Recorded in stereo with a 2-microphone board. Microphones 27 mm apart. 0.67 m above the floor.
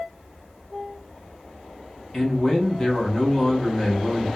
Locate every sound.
2.1 s a man speaking: 20° left (ahead or behind), 0.7 m